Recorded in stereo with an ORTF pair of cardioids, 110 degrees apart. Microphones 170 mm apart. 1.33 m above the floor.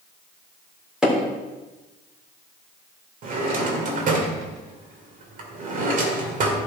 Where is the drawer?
55° right, 2.5 m.